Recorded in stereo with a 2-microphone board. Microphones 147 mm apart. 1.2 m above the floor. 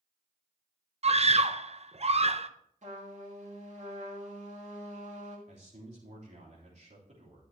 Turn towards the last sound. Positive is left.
turn(degrees=-50)  # may be behind; listen again after turning